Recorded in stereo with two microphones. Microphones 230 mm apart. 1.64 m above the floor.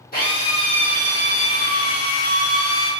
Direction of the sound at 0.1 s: 40° left (ahead or behind).